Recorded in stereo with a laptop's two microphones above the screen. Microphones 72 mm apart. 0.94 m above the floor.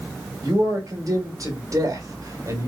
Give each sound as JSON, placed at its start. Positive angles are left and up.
{"t": 0.4, "sound": "a man speaking", "side_deg": -45, "distance_m": 2.0}